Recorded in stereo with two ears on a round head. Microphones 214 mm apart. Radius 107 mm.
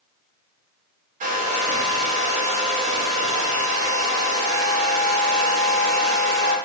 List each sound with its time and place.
1.2 s a hair dryer: 30° right (ahead or behind), 1.0 m